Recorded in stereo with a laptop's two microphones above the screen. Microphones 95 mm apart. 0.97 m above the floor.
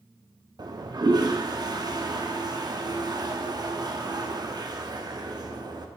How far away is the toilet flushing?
About 0.5 m.